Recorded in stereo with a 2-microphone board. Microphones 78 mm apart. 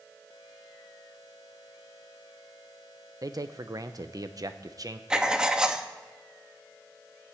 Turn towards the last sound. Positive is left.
turn(degrees=-10)  # may be behind; listen again after turning